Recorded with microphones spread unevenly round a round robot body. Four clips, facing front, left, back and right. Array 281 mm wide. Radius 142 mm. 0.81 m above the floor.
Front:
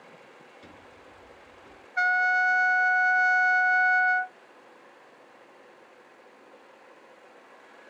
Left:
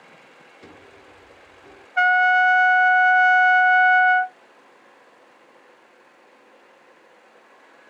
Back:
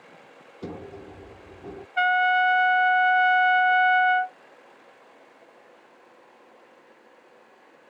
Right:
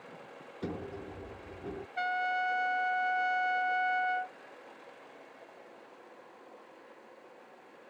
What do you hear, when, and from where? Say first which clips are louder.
0.6 s a sliding door: right 9 dB, back 17 dB; 150° right
2.0 s a trumpet: left 16 dB, back 3 dB; 100° left